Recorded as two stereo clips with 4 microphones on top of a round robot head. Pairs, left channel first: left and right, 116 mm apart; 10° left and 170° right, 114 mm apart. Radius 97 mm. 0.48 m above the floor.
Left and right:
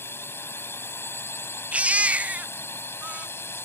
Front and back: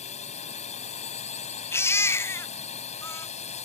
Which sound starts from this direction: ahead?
A drone, at 0.0 s.